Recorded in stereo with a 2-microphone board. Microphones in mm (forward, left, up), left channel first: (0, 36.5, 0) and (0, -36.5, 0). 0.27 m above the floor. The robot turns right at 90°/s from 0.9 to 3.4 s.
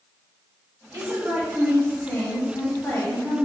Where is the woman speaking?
75° right, 1.5 m; by 3.5 s 145° left, 1.5 m.